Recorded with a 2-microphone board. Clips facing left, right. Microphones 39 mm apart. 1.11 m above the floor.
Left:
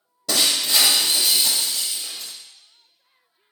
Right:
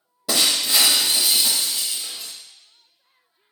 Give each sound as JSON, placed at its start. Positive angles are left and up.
{"t": 0.3, "sound": "breaking glass", "side_deg": -15, "distance_m": 1.0}